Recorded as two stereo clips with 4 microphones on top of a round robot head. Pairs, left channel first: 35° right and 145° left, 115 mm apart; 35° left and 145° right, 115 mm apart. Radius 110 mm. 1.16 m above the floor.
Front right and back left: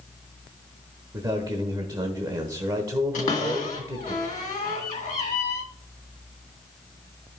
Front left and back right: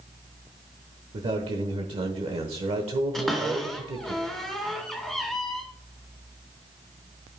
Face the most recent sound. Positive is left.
turn(degrees=-55)